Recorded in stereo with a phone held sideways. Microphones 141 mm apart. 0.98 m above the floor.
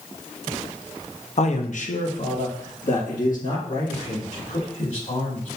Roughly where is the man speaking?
Left.